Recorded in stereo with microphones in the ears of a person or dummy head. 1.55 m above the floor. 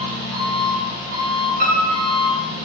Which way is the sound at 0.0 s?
60° right (ahead or behind).